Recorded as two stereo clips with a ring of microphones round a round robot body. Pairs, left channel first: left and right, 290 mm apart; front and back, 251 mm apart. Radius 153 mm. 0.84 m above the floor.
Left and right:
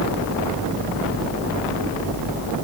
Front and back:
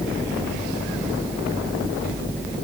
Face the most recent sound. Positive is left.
No sound to turn to.